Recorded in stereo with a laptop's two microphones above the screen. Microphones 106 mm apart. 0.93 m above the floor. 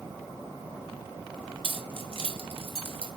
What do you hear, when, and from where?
1.6 s keys jangling: 60° right (ahead or behind), 2.5 m; by 3.1 s 65° right (ahead or behind), 3.5 m